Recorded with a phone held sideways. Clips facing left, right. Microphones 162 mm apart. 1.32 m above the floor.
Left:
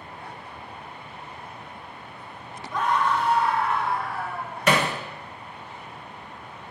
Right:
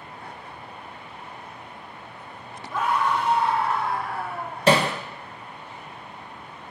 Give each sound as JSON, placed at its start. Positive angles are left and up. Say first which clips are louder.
{"t": 2.7, "sound": "a scream", "louder": "even", "side_deg": -5, "distance_m": 2.0}
{"t": 4.7, "sound": "hammering", "louder": "right 3 dB", "side_deg": -30, "distance_m": 0.8}